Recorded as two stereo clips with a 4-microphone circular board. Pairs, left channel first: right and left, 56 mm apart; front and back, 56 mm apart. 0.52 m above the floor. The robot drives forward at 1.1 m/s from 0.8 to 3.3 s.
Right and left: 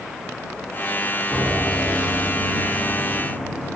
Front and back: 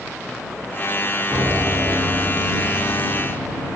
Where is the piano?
135° right, 3.5 m; by 3.8 s 155° right, 5 m.